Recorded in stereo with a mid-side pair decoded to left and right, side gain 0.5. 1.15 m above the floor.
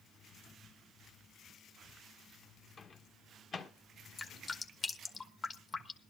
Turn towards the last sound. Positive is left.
turn(degrees=40)